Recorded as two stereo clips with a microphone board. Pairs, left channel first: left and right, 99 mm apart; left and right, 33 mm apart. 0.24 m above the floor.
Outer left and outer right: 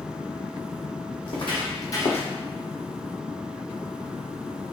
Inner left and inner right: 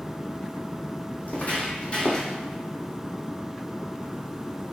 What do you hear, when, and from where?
1.2 s footsteps: 60° left (ahead or behind), 1.0 m; by 2.3 s 20° left (ahead or behind), 0.7 m